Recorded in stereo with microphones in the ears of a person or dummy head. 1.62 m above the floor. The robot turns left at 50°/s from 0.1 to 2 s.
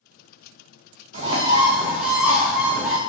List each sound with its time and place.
1.1 s a bird: 130° right, 0.6 m; by 3.0 s 170° right, 0.6 m